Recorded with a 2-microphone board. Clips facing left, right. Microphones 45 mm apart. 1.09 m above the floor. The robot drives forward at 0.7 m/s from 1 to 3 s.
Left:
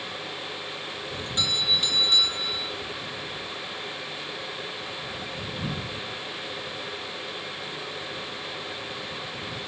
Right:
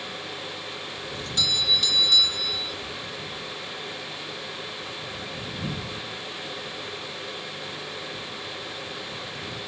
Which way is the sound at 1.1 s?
20° left (ahead or behind).